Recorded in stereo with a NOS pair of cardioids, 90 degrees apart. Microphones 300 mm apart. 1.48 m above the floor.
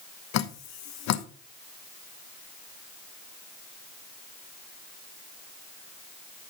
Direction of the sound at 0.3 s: 65° left.